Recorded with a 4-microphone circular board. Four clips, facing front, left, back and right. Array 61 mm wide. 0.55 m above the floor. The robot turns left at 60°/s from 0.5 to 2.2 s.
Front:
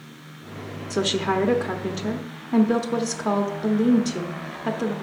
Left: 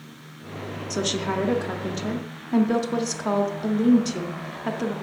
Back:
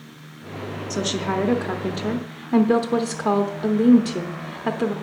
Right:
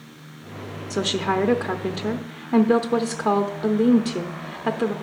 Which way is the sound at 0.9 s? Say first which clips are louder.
Right 3 dB, front 2 dB; 45° right.